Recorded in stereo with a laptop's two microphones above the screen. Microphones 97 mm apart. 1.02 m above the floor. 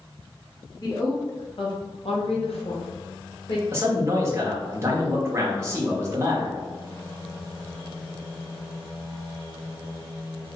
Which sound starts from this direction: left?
A woman speaking, at 0.8 s.